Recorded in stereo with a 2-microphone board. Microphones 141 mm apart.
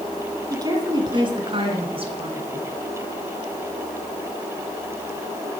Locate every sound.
0.5 s a woman speaking: 30° right (ahead or behind), 1.4 m; by 2.7 s 45° right (ahead or behind), 2 m